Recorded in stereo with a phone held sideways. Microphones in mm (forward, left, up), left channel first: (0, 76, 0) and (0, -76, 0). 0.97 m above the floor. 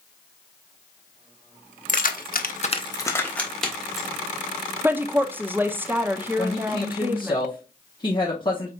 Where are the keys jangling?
55° left (ahead or behind), 0.9 m; by 4.1 s centre (ahead or behind), 1.9 m.